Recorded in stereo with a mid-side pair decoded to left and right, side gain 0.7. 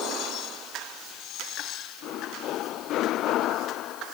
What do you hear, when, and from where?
Only background noise.